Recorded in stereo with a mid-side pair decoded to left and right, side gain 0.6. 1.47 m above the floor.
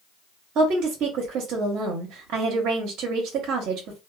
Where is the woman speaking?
60° right, 1.0 m.